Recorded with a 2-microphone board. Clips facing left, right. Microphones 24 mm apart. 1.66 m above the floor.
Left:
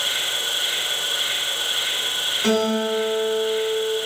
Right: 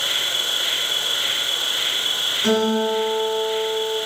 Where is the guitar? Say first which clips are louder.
Right 1 dB; 10° left (ahead or behind), 6.5 m.